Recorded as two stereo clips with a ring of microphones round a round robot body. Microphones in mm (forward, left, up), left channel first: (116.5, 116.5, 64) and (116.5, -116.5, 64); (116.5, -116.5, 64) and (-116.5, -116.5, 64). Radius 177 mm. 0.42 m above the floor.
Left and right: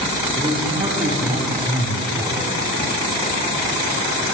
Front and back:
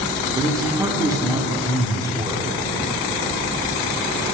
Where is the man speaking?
125° right, 1.4 m.